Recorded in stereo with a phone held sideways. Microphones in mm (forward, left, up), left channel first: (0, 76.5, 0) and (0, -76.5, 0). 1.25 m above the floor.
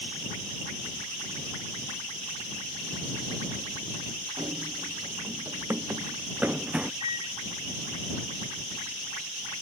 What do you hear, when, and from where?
4.4 s running footsteps: 35° right (ahead or behind); by 6.9 s 10° right (ahead or behind)
7.0 s a microwave: 35° right (ahead or behind)